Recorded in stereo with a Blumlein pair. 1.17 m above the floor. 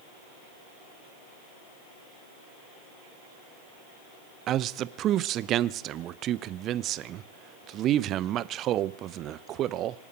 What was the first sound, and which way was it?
A man speaking, 30° right.